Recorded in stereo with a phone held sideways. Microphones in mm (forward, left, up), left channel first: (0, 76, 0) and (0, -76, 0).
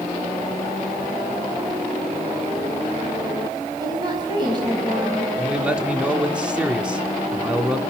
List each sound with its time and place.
3.8 s a woman speaking: 30° right (ahead or behind), 5 m
5.4 s a man speaking: 5° right (ahead or behind), 2 m